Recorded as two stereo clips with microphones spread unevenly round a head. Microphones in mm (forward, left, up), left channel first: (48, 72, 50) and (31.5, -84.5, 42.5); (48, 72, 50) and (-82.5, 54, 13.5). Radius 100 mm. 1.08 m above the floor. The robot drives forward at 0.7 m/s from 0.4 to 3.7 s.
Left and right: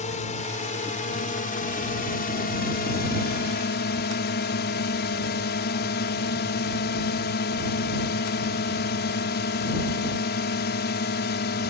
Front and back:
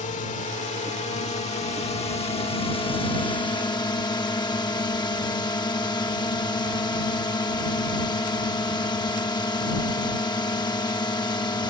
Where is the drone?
40° left; by 11.7 s 70° left.